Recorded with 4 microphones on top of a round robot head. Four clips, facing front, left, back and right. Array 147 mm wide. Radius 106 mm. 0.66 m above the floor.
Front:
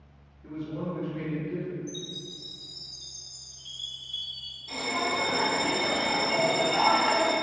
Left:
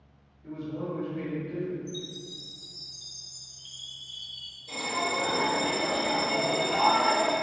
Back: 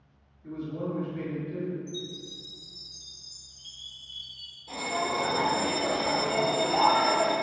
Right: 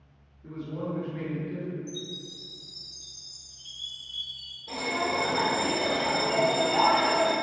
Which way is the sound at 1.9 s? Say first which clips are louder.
Even, back 1 dB; 120° right.